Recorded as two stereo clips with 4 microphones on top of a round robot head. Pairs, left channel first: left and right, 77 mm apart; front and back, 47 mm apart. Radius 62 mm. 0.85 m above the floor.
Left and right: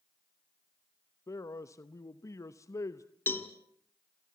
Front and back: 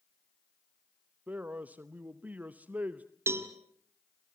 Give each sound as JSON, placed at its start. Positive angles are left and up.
{"t": 1.3, "sound": "a man speaking", "azimuth_deg": 130, "distance_m": 0.9}
{"t": 3.3, "sound": "a cowbell", "azimuth_deg": 155, "distance_m": 1.5}